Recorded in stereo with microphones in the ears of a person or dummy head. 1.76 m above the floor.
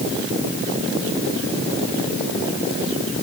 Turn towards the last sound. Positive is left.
No sound to turn to.